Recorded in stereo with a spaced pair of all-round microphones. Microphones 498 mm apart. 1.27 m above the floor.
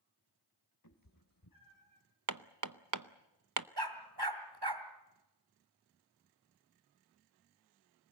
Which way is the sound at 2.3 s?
40° right (ahead or behind).